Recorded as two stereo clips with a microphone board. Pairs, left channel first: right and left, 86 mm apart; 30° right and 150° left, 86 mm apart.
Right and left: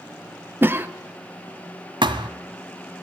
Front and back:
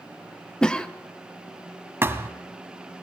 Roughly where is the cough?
Ahead left.